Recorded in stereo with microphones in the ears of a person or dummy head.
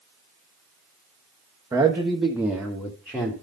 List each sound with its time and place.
1.7 s a man speaking: 15° right (ahead or behind), 1.3 m; by 3.3 s 10° left (ahead or behind), 2.0 m